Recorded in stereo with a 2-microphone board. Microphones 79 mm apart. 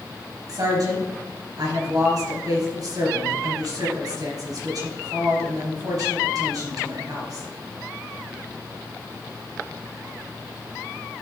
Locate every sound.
0.5 s a woman speaking: 60° right (ahead or behind), 3.5 m